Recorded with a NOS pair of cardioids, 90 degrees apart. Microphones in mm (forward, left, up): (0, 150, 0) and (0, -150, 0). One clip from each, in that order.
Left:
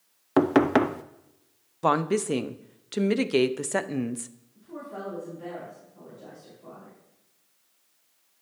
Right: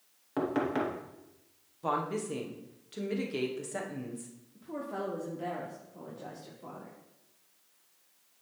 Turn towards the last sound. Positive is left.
turn(degrees=-45)